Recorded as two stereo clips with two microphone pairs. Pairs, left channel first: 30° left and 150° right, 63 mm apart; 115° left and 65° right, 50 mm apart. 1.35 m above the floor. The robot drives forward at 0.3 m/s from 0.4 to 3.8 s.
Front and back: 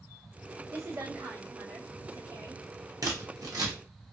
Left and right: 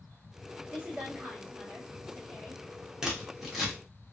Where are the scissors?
145° right, 0.8 m; by 3.7 s 155° right, 1.0 m.